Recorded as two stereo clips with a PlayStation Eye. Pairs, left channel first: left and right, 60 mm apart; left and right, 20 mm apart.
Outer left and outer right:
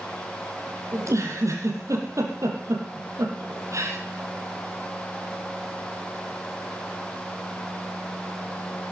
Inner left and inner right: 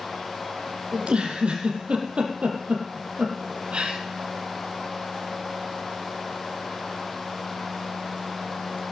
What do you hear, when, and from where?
0.9 s a giggle: 55° right (ahead or behind), 5 m